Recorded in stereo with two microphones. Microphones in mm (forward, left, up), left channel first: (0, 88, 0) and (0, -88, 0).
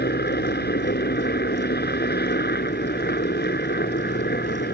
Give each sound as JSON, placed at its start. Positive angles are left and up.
{"t": 0.0, "sound": "a helicopter", "side_deg": 60}